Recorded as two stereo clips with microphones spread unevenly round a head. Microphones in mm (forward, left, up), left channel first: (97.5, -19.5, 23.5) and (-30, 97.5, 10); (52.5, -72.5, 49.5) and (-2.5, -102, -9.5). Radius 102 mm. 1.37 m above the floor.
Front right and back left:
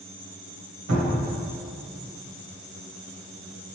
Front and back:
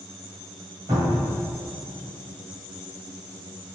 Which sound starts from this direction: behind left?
A cupboard door, at 0.9 s.